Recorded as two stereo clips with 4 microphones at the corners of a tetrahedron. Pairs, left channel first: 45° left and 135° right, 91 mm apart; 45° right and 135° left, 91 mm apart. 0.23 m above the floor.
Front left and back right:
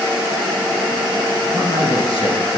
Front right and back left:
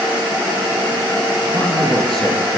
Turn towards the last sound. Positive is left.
turn(degrees=40)